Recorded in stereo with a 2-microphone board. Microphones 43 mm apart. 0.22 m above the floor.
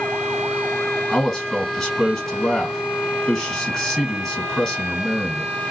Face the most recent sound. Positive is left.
turn(degrees=5)  # may be behind; listen again after turning